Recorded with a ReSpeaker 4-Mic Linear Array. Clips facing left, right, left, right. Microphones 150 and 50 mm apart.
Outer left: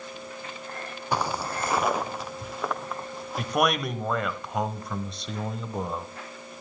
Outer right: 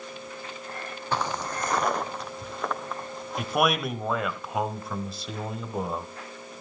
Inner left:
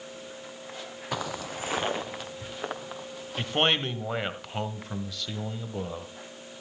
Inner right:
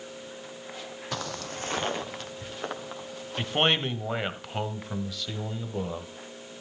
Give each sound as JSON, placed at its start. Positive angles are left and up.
{"t": 1.1, "sound": "footsteps", "side_deg": 10, "distance_m": 0.6}
{"t": 3.4, "sound": "a man speaking", "side_deg": 0, "distance_m": 1.4}